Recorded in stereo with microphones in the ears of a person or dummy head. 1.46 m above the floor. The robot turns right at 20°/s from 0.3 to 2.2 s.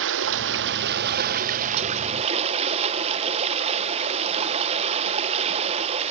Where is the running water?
75° right, 0.9 m; by 6.1 s 35° right, 0.9 m.